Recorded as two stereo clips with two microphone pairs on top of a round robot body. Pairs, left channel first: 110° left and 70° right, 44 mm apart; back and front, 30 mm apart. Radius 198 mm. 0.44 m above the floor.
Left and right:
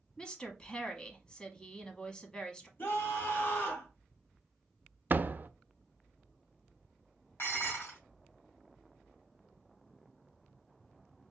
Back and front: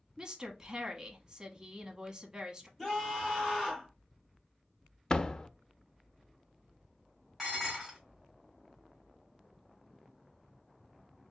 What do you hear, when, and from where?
0.2 s a woman speaking: 50° left, 1.3 m
2.8 s a scream: 85° left, 3 m
5.1 s a door slam: 115° right, 0.5 m
7.4 s dishes clattering: 80° left, 2.5 m